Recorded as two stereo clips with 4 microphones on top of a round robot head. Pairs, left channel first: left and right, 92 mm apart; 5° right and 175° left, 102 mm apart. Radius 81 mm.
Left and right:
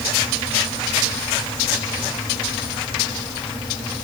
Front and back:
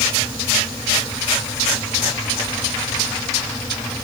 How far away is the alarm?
I don't hear an alarm.